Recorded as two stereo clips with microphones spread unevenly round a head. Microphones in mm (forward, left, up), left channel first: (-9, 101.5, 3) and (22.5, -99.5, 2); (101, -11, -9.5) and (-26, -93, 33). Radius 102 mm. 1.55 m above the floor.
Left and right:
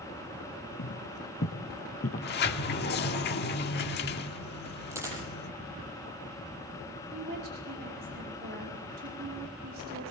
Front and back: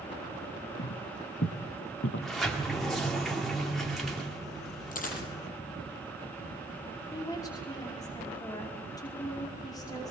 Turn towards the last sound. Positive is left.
turn(degrees=-35)